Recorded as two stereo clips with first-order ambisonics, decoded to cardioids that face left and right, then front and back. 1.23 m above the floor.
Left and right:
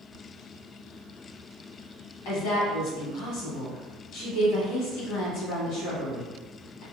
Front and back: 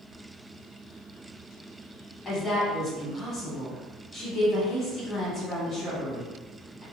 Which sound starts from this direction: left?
A woman speaking, at 2.2 s.